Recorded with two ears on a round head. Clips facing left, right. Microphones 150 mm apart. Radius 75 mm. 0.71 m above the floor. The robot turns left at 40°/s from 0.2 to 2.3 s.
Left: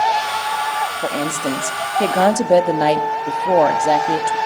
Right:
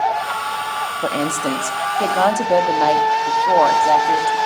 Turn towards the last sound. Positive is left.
turn(degrees=145)